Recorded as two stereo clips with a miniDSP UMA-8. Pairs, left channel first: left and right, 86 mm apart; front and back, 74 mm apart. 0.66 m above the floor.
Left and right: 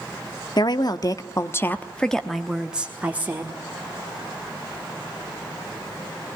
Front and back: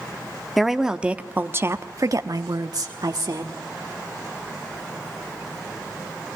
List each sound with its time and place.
0.6 s a woman speaking: 90° left, 1.2 m; by 3.6 s 155° right, 1.7 m